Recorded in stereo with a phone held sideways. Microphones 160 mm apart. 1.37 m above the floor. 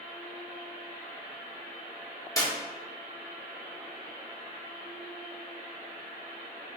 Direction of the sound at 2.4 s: 20° left (ahead or behind).